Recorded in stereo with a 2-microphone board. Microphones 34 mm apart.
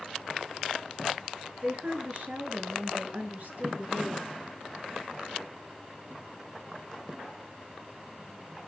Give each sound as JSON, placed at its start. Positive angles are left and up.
{"t": 1.6, "sound": "a woman speaking", "side_deg": -45, "distance_m": 4.0}